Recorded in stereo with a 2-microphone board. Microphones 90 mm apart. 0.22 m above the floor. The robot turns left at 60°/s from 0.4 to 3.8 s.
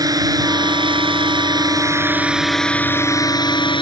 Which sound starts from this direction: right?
A drone, at 0.0 s.